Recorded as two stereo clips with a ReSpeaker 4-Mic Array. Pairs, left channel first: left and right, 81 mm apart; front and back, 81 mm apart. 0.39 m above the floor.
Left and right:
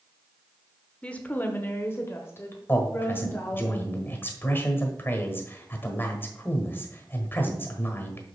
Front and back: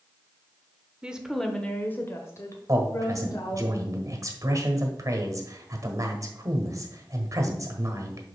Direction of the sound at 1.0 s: 135° left.